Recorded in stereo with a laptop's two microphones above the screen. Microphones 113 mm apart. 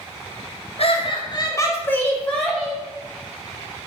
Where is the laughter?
60° left (ahead or behind), 0.9 m; by 2.8 s centre (ahead or behind), 1.8 m.